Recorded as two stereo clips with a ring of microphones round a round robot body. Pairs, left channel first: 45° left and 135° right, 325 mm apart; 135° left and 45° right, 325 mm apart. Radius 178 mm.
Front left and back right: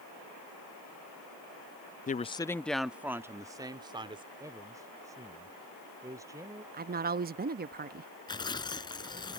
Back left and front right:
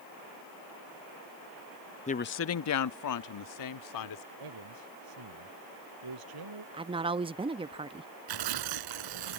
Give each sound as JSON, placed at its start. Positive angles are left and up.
{"t": 2.1, "sound": "a woman speaking", "azimuth_deg": 85}
{"t": 4.4, "sound": "a man speaking", "azimuth_deg": -55}
{"t": 6.7, "sound": "a woman speaking", "azimuth_deg": -105}
{"t": 8.3, "sound": "tearing paper", "azimuth_deg": -30}